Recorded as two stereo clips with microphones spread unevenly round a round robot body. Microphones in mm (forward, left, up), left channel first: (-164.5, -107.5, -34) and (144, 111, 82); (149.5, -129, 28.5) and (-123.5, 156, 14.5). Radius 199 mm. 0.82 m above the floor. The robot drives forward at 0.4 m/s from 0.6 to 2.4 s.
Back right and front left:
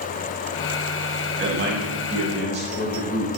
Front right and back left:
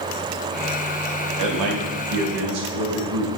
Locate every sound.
1.4 s a man speaking: 100° left, 1.6 m; by 3.3 s 115° left, 1.8 m